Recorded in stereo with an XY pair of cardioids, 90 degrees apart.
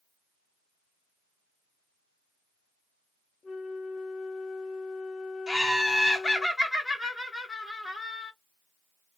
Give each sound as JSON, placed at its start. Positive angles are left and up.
{"t": 3.4, "sound": "a flute", "azimuth_deg": 60, "distance_m": 0.7}
{"t": 5.5, "sound": "laughter", "azimuth_deg": 20, "distance_m": 0.7}